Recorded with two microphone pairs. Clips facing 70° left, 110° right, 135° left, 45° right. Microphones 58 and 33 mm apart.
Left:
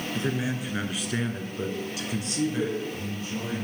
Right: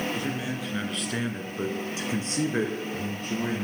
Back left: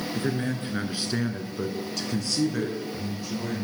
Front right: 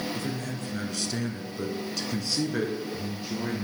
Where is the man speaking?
120° left, 1.4 m; by 3.6 s 100° right, 1.9 m.